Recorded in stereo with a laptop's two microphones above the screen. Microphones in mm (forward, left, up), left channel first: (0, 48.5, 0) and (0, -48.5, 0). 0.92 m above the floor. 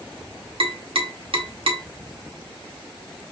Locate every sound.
0.6 s tapping: 65° right (ahead or behind), 0.8 m